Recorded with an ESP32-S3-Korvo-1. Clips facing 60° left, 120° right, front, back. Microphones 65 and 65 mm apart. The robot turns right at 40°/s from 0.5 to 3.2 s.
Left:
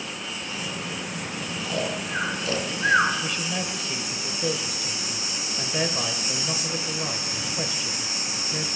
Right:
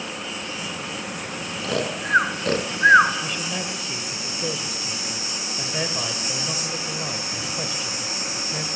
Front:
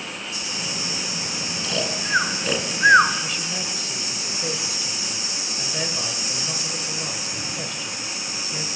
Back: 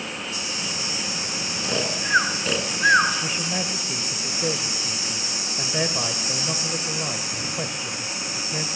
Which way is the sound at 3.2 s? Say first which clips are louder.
Even, back 2 dB; 150° left.